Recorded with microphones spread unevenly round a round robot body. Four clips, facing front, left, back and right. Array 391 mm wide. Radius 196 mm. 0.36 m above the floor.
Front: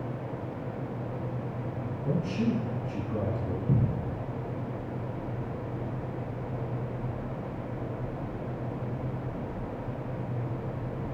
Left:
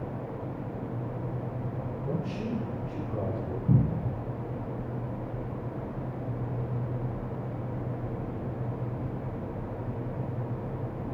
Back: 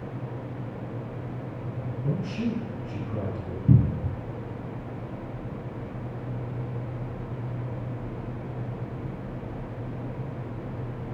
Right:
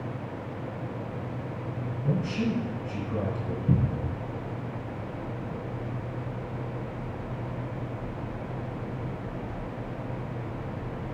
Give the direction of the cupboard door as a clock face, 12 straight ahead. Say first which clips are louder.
Left 1 dB, back 8 dB; 6 o'clock.